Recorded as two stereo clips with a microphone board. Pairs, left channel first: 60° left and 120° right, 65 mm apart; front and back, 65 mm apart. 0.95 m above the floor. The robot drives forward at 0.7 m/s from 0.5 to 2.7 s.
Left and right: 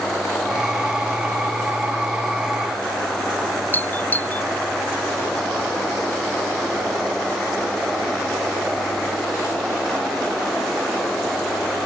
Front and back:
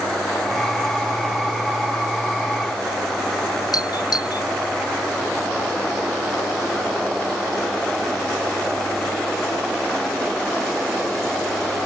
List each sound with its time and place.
3.7 s a doorbell: straight ahead